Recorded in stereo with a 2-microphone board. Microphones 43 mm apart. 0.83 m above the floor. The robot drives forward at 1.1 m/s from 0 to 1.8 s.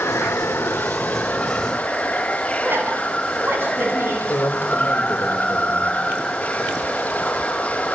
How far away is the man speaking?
About 2.5 m.